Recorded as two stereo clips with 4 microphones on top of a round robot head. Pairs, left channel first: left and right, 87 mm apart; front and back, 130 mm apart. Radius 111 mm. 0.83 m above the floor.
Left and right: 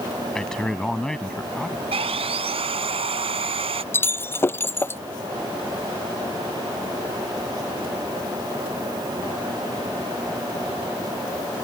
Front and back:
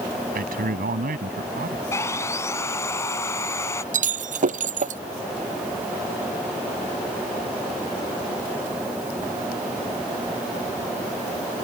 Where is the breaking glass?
155° left.